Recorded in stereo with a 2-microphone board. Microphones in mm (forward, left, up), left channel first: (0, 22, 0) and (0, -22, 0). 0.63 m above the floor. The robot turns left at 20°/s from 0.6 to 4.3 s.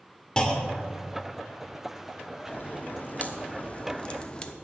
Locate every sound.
0.4 s a clunk: 20° left (ahead or behind), 1.2 m; by 1.0 s 10° left (ahead or behind), 1.2 m
2.5 s a crack: 60° left, 0.8 m; by 4.5 s 25° left, 0.8 m